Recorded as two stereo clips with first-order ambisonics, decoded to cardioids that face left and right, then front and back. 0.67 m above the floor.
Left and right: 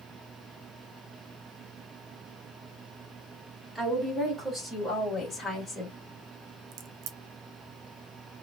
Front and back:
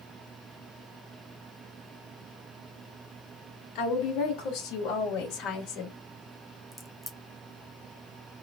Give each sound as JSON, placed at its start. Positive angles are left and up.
{"t": 3.8, "sound": "a woman speaking", "azimuth_deg": 0, "distance_m": 1.7}
{"t": 6.7, "sound": "a crack", "azimuth_deg": -85, "distance_m": 0.6}